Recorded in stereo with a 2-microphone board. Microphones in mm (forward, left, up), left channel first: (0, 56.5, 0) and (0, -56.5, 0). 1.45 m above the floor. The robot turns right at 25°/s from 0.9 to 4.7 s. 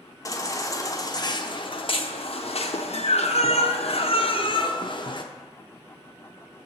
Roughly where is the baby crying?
Ahead left.